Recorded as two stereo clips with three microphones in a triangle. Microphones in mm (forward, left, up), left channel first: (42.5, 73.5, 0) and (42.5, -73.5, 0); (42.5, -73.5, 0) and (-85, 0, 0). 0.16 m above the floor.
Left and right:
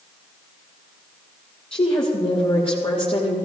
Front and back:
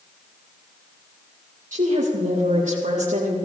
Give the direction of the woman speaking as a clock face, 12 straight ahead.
8 o'clock.